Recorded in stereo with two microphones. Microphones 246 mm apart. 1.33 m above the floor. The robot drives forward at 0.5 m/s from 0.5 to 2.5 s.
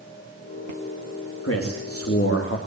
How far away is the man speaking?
About 2.5 m.